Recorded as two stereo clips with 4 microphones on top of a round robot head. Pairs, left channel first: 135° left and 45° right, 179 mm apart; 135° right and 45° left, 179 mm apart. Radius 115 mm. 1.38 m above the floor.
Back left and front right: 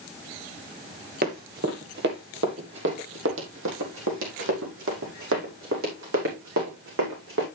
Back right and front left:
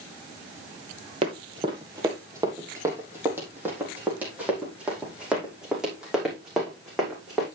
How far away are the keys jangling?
I don't hear keys jangling.